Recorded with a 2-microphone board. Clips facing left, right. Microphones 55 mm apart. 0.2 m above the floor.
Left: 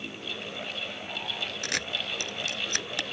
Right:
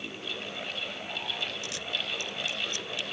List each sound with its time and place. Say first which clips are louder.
1.6 s a camera shutter: left 3 dB; 65° left (ahead or behind)